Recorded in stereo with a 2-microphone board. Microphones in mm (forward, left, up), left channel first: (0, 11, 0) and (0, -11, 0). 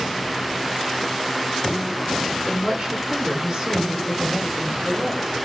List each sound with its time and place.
2.5 s a woman speaking: 40° right (ahead or behind), 4 m; by 5.3 s 45° right (ahead or behind), 5.5 m